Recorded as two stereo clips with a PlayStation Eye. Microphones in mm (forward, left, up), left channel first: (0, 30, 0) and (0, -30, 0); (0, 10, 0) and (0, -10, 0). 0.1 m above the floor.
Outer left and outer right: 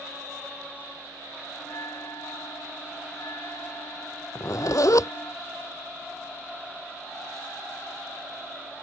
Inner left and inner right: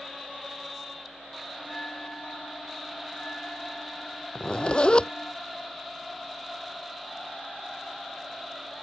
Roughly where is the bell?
Left.